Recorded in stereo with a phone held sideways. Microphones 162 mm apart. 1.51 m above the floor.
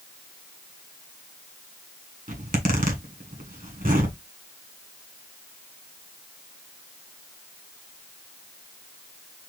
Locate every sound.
2.3 s a zipper: 60° right (ahead or behind), 1.2 m